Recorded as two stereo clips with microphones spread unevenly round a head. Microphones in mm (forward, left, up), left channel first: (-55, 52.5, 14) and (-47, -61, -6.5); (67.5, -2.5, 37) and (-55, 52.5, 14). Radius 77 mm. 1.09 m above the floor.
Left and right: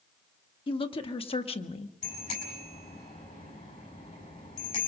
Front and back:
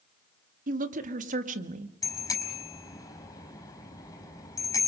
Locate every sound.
0.7 s a woman speaking: 135° left, 2 m; by 1.9 s 125° left, 1.4 m
2.0 s a bicycle bell: 40° left, 5 m